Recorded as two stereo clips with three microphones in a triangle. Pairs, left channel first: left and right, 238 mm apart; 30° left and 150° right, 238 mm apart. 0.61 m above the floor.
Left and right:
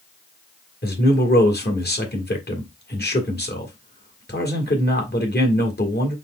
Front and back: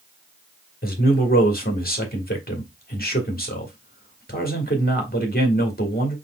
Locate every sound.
0.8 s a man speaking: 65° left, 1.2 m